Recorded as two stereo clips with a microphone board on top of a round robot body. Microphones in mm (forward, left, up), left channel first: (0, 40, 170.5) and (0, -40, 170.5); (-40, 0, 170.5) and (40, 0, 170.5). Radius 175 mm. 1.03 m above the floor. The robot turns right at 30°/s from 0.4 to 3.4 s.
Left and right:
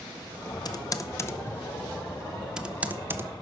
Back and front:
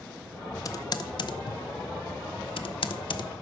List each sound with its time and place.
0.7 s typing on a keyboard: 130° left, 0.7 m; by 3.3 s 150° right, 0.7 m